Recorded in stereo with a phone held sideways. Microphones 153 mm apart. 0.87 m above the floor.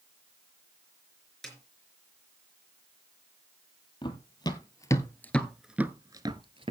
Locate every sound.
1.4 s a snare drum: centre (ahead or behind), 4.5 m
4.0 s running footsteps: 30° left (ahead or behind), 1.8 m; by 6.7 s 40° right (ahead or behind), 1.1 m